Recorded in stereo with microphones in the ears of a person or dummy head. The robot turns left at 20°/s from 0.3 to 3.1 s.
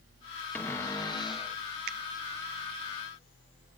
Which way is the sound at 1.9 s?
60° right (ahead or behind).